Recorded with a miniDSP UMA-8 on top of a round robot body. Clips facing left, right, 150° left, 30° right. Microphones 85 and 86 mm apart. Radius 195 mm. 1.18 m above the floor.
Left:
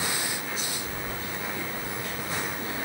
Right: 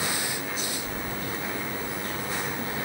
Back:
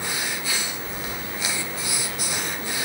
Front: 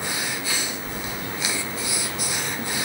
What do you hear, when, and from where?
0.8 s keys jangling: 50° right, 9.5 m; by 2.9 s 35° right, 7.5 m